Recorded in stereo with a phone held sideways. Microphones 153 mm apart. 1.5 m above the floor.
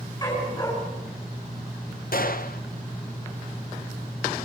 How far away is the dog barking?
About 7 m.